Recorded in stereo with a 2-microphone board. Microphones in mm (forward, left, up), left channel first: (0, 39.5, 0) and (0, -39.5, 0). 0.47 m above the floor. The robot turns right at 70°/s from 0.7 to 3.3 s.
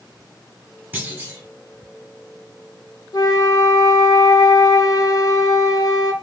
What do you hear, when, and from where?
0.9 s a clunk: 140° right, 1.5 m; by 1.4 s 105° right, 1.5 m
3.1 s a flute: 60° left (ahead or behind), 0.6 m; by 6.1 s 50° left (ahead or behind), 0.6 m